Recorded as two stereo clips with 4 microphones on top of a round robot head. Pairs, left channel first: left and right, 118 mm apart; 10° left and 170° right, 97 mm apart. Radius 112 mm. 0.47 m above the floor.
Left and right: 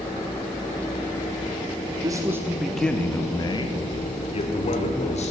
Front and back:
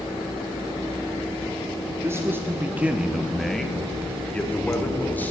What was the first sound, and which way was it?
A man speaking, 125° right.